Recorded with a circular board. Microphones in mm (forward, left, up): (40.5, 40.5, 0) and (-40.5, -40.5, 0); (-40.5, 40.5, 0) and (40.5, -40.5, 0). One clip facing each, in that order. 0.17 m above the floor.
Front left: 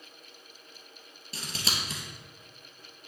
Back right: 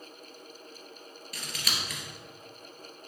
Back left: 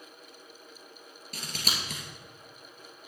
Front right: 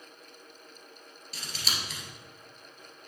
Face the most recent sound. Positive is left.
turn(degrees=105)